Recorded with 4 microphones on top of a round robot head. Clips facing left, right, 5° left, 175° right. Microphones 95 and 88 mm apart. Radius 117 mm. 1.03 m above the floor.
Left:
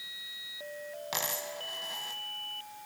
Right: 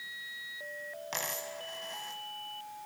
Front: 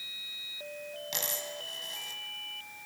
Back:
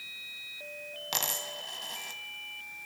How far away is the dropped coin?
About 1.1 m.